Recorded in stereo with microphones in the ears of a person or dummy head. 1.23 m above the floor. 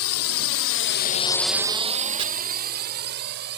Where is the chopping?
30° right (ahead or behind).